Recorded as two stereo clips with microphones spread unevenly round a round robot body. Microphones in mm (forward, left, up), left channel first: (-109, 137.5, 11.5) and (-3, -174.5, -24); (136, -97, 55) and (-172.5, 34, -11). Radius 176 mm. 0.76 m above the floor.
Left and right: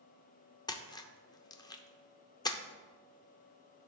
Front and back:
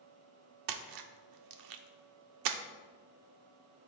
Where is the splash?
175° right, 0.8 m.